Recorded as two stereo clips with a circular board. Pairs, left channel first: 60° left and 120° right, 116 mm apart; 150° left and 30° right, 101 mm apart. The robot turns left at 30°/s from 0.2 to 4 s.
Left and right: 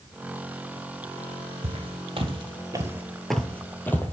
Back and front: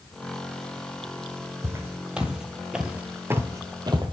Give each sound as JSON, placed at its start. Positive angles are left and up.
{"t": 1.6, "sound": "footsteps", "azimuth_deg": -95, "distance_m": 1.8}